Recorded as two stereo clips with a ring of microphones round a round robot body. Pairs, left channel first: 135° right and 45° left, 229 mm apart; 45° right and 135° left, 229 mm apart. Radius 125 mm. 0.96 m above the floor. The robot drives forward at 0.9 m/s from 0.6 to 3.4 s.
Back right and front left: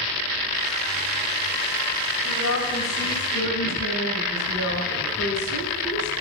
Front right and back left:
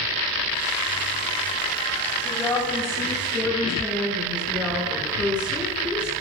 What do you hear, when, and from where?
2.2 s a woman speaking: 130° right, 4 m; by 6.1 s 140° right, 4.5 m